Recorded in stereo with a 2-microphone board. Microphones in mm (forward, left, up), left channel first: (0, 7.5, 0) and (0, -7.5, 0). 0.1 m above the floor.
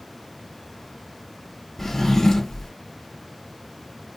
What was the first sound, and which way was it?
A drawer, 25° left (ahead or behind).